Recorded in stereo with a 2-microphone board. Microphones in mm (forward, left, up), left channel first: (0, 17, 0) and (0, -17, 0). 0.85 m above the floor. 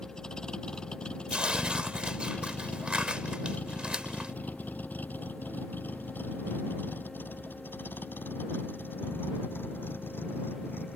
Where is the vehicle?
20° left (ahead or behind); by 11.0 s 85° left.